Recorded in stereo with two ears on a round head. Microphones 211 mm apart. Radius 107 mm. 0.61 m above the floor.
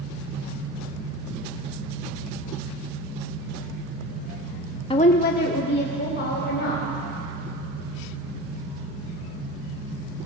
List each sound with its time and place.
4.9 s a woman speaking: 20° left (ahead or behind), 0.6 m; by 6.8 s 45° left (ahead or behind), 3 m